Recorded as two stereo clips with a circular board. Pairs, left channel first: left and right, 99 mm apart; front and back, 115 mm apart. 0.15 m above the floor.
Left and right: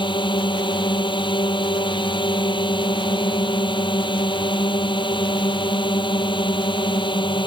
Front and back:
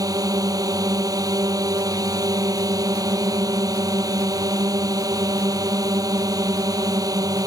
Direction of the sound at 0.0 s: 125° left.